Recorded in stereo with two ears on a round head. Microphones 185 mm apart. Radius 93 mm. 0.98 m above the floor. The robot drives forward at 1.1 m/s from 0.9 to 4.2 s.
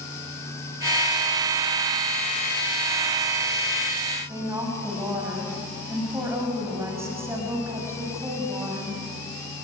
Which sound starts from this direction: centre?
A woman speaking, at 4.3 s.